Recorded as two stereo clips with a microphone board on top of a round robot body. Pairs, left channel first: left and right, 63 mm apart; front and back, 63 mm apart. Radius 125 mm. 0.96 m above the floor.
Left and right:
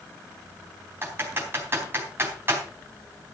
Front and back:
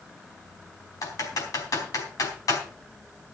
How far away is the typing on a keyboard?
About 4 m.